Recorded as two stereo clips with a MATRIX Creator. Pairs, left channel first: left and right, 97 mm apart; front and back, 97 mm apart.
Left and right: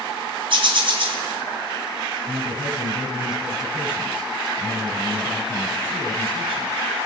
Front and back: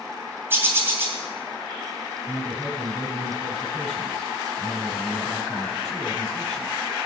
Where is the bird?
115° right, 3 m.